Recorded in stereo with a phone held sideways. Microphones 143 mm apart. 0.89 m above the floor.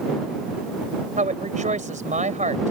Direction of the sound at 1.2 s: 60° right (ahead or behind).